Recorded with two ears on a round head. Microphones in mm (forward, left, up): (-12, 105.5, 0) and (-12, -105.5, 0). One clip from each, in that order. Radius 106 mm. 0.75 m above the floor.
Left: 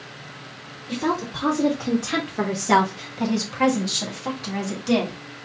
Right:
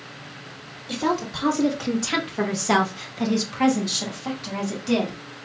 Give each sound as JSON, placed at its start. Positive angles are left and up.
{"t": 0.9, "sound": "a woman speaking", "side_deg": -35, "distance_m": 1.4}